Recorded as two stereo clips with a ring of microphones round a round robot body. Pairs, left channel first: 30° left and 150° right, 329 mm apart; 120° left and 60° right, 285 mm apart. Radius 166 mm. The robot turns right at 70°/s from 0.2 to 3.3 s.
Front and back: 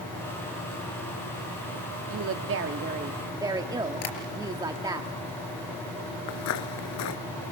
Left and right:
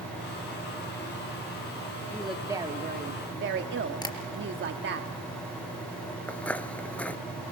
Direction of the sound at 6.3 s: 35° left.